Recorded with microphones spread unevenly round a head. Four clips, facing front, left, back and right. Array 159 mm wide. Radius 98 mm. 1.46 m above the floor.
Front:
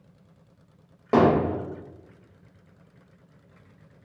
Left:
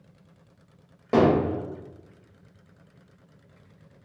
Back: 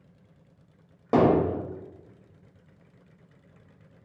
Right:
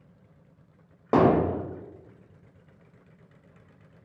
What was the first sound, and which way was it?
Hammering, 175° left.